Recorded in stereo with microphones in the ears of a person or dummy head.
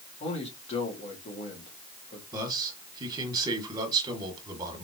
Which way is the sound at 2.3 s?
25° right (ahead or behind).